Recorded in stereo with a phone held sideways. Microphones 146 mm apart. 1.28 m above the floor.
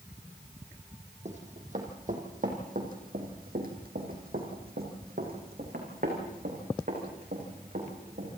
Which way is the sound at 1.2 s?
50° right (ahead or behind).